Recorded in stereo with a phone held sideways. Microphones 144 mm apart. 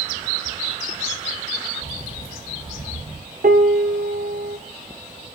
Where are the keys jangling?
85° left, 4.5 m; by 3.2 s 75° left (ahead or behind), 4.5 m.